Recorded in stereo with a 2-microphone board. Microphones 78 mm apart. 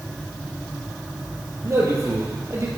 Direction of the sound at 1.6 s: 40° right (ahead or behind).